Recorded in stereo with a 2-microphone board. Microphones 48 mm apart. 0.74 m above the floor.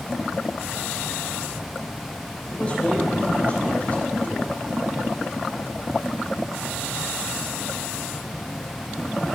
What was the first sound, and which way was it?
A man speaking, 35° left (ahead or behind).